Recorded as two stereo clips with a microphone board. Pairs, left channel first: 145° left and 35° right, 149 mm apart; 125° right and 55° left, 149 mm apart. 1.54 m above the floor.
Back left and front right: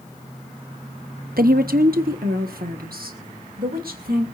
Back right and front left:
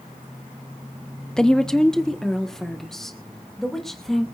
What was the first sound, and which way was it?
A woman speaking, 40° right.